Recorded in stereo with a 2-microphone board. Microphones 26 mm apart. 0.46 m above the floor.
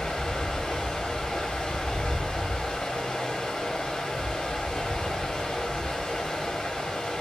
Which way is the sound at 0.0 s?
40° left (ahead or behind).